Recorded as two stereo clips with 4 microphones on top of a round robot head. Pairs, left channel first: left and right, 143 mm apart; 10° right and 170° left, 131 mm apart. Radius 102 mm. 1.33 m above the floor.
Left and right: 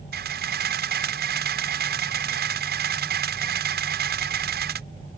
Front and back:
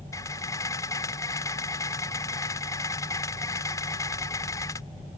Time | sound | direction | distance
0.1 | a camera shutter | 85° right | ?